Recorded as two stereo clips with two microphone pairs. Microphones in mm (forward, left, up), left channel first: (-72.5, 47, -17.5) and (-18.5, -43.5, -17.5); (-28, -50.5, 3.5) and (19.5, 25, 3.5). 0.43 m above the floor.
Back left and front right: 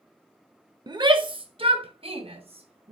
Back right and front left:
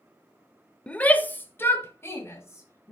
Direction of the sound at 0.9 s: 50° right.